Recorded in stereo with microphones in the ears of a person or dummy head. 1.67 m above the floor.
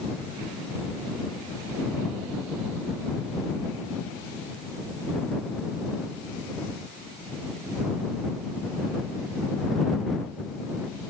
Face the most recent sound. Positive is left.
No sound to turn to.